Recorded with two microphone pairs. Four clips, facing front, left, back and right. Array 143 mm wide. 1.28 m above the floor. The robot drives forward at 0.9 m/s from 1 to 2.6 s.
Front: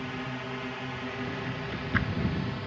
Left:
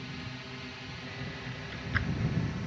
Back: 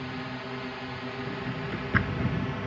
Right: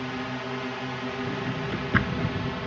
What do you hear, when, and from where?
0.0 s a drone: 90° right; by 2.7 s 110° right
1.3 s a drawer: 100° right; by 2.3 s 115° right